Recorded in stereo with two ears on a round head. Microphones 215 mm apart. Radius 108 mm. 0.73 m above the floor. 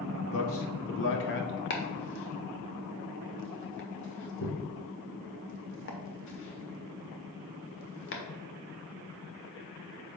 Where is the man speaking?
60° left (ahead or behind), 1.3 m; by 1.6 s 50° left (ahead or behind), 1.6 m.